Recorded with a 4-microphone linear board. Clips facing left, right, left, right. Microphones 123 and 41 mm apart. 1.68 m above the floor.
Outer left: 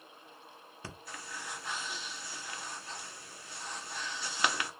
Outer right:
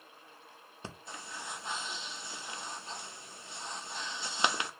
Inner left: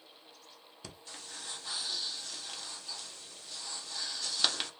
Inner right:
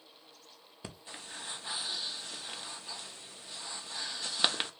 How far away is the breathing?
About 0.5 m.